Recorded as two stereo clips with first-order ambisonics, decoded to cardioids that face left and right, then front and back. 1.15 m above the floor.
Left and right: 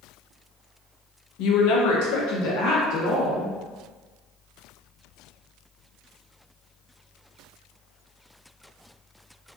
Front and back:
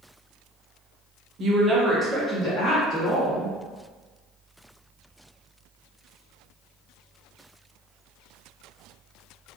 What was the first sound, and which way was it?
A woman speaking, 125° left.